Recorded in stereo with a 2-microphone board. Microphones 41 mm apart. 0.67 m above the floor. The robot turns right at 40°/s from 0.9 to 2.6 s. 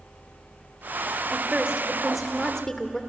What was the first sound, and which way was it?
A woman speaking, 35° right.